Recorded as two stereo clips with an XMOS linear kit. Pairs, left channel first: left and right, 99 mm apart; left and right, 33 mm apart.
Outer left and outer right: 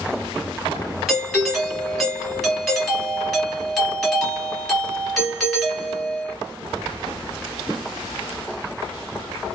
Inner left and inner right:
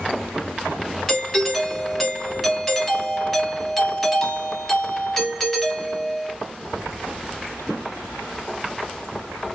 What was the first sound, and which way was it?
A doorbell, 5° left (ahead or behind).